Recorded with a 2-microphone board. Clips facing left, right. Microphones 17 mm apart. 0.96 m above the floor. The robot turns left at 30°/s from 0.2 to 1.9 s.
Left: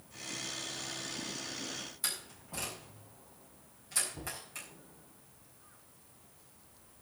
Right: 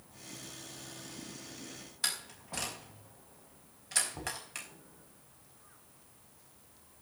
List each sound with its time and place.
2.0 s a door slam: 40° right (ahead or behind), 5 m
4.1 s knocking: 50° right (ahead or behind), 5 m